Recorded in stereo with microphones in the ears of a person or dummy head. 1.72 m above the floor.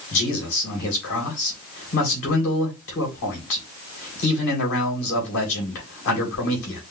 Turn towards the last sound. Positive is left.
turn(degrees=60)  # may be behind; listen again after turning